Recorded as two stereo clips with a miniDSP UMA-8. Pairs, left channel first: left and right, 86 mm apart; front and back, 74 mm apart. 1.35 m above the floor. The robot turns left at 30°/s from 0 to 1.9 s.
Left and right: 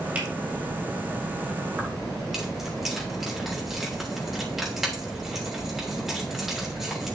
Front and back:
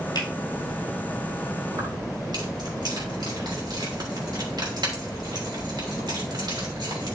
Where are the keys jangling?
170° right, 3 m; by 7.2 s 175° right, 3 m.